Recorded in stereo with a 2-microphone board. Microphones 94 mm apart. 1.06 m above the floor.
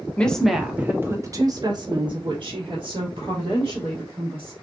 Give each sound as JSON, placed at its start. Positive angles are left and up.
{"t": 0.2, "sound": "a woman speaking", "side_deg": 15, "distance_m": 0.7}